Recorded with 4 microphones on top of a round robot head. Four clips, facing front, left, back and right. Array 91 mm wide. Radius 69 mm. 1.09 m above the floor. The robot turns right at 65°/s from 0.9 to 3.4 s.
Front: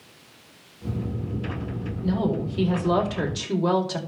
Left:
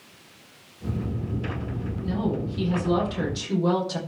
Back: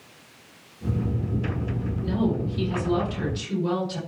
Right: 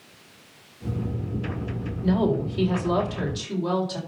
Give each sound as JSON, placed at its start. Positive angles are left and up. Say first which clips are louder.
{"t": 2.0, "sound": "a woman speaking", "louder": "right 5 dB, front 1 dB", "azimuth_deg": -75, "distance_m": 5.0}